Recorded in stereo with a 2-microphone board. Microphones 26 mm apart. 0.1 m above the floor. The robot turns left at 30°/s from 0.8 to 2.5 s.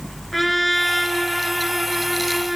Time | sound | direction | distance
0.3 | a trumpet | 5° left (ahead or behind) | 1.5 m